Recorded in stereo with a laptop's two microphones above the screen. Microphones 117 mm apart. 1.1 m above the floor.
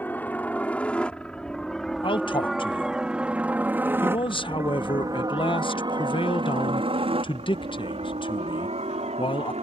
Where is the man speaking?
45° left (ahead or behind).